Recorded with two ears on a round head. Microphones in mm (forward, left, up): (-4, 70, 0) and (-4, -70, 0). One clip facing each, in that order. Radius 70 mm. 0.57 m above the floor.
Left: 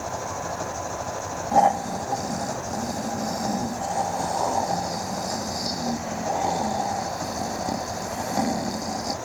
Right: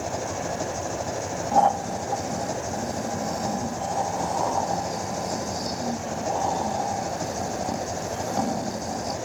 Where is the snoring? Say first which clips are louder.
Left 1 dB; 10° left (ahead or behind).